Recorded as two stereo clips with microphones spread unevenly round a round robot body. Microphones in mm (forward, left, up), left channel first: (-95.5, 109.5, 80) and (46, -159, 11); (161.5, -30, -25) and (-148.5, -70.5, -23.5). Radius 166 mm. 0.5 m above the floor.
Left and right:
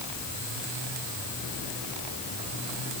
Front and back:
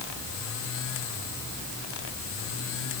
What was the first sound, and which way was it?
Only background noise.